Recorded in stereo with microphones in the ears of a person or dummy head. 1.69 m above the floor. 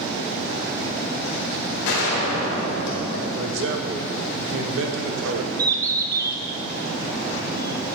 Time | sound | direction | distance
1.9 | a gunshot | 75° left (ahead or behind) | 1.6 m
3.3 | a man speaking | 70° right (ahead or behind) | 0.9 m
5.6 | a bird | 25° right (ahead or behind) | 0.7 m